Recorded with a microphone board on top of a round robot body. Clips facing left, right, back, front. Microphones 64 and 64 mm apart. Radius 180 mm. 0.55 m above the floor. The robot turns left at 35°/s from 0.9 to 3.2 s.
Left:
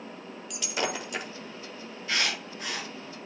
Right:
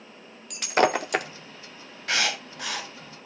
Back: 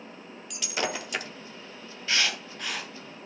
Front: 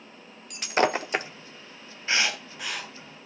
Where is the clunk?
I don't hear a clunk.